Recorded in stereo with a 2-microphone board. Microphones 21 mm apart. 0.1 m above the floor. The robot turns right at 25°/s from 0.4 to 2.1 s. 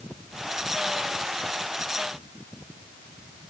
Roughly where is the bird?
I don't hear a bird.